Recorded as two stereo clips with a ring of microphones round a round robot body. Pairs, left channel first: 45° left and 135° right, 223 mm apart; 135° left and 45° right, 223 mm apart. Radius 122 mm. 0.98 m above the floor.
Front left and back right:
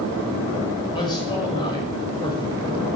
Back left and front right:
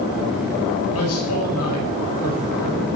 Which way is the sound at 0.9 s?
115° left.